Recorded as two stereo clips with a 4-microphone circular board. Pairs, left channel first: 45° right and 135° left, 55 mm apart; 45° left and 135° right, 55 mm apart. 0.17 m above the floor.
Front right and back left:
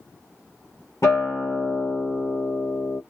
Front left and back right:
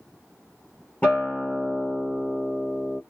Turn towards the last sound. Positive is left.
turn(degrees=-20)